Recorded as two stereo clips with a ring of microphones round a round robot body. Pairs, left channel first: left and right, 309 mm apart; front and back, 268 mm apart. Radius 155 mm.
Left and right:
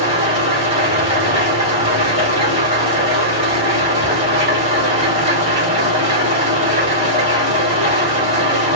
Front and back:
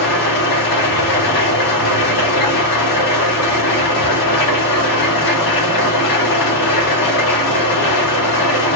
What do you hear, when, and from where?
0.0 s an engine running: 15° right, 1.2 m